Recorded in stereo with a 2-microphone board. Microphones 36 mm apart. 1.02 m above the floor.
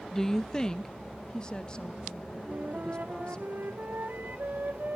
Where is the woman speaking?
15° left (ahead or behind), 0.6 m; by 3.5 s 30° left (ahead or behind), 2.5 m.